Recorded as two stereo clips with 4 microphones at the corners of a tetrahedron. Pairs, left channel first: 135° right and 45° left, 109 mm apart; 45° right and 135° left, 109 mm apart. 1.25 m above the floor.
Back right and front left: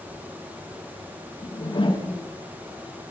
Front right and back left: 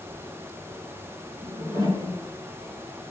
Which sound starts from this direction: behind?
A whoosh, at 1.4 s.